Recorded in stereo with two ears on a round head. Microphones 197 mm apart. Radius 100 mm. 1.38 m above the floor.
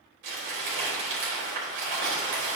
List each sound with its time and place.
0.2 s crumpling: 60° right (ahead or behind), 4 m